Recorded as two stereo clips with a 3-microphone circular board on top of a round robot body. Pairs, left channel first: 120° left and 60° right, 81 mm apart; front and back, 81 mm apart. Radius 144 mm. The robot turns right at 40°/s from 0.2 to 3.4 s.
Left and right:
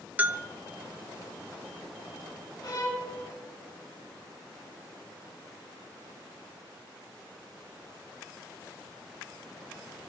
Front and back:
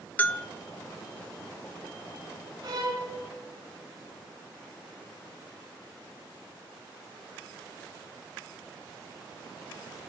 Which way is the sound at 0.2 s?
30° right.